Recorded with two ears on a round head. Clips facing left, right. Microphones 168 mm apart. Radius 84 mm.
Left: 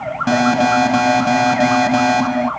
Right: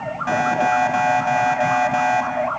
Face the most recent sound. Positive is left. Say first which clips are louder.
# left 5 dB
turn(degrees=50)  # may be behind; listen again after turning